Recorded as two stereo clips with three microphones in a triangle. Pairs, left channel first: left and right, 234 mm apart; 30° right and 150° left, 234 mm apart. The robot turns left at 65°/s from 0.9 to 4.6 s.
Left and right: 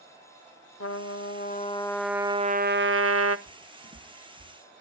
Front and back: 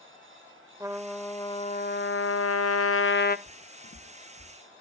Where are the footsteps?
45° right, 1.0 m; by 4.5 s 65° right, 1.1 m.